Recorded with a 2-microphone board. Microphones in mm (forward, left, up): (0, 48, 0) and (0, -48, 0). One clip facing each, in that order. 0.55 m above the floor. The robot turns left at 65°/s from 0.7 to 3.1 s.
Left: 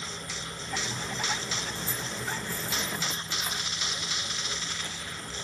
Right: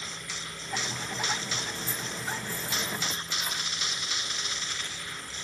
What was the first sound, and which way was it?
Keys jangling, 65° left (ahead or behind).